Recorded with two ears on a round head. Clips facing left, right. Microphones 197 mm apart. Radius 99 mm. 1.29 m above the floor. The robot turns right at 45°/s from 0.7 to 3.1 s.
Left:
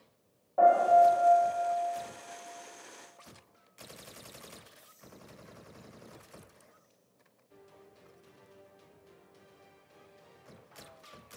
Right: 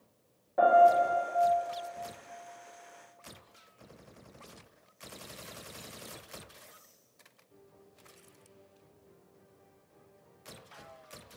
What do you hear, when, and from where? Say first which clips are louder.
0.6 s a piano: even; 40° right, 0.9 m; by 1.5 s 5° right, 0.9 m